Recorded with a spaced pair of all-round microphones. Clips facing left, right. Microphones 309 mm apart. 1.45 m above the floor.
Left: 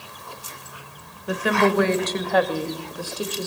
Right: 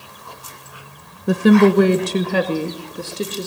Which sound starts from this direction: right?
A woman speaking, at 1.3 s.